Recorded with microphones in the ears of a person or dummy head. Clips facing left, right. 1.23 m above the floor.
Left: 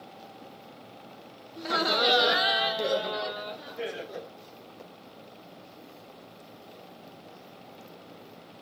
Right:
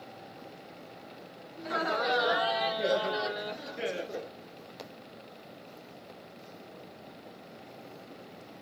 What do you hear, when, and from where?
1.6 s laughter: 60° left (ahead or behind), 0.8 m; by 4.3 s 40° right (ahead or behind), 1.3 m